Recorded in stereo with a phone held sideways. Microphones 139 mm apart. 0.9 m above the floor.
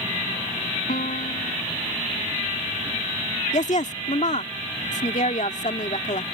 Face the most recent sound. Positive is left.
turn(degrees=60)  # may be behind; listen again after turning